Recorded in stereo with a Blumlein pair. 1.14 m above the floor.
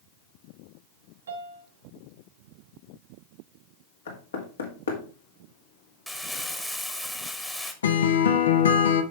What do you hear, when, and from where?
1.3 s a piano: 65° right, 1.5 m
4.1 s knocking: 65° left, 2.0 m
6.1 s crumpling: 5° left, 1.3 m
7.8 s a guitar: 65° left, 0.9 m